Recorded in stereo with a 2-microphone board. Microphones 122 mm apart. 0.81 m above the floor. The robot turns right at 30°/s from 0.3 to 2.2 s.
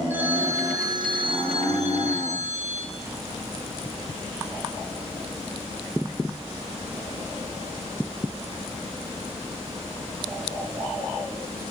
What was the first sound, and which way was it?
A phone ringing, 165° right.